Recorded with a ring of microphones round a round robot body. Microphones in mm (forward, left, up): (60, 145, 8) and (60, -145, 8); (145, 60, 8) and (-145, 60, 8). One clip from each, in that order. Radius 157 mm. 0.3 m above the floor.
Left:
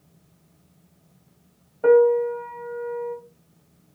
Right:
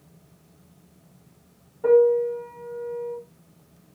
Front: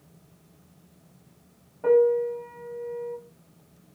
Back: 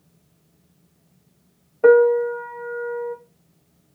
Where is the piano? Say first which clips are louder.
Left 1 dB, back 6 dB; 145° left, 0.5 m.